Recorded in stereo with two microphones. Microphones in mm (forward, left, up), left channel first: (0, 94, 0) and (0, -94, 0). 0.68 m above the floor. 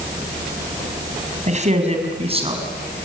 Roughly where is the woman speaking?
Right.